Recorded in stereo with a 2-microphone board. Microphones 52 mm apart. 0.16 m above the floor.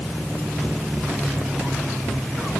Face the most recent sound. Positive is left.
No sound to turn to.